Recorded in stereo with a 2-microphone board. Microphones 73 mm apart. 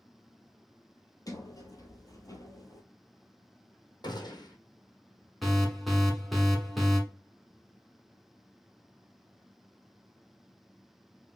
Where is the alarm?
Centre (ahead or behind), 1.1 m.